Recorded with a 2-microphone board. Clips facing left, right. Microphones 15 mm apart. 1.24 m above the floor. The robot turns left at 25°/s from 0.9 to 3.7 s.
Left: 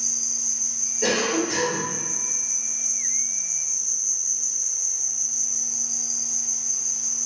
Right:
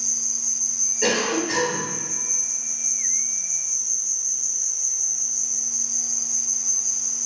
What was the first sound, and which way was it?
An insect, 10° left (ahead or behind).